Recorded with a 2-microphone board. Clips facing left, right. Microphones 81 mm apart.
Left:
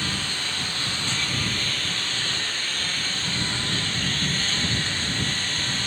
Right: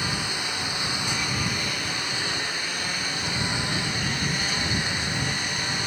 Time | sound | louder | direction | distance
0.0 | a lawn mower | right 1 dB | 10° right (ahead or behind) | ?